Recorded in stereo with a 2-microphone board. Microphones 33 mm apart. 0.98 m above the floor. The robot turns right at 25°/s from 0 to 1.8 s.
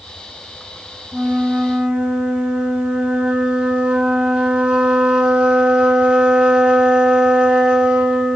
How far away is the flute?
About 0.8 m.